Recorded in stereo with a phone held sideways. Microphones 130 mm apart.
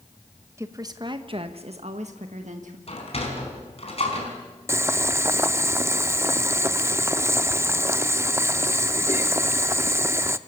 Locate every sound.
0.6 s a woman speaking: 25° right (ahead or behind), 1.3 m; by 2.8 s 70° right (ahead or behind), 1.8 m
2.9 s a sliding door: 50° left (ahead or behind), 4.5 m
4.7 s boiling: 20° right (ahead or behind), 0.6 m